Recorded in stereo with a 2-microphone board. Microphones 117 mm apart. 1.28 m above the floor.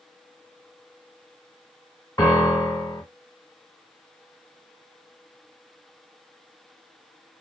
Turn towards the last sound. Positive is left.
turn(degrees=30)  # may be behind; listen again after turning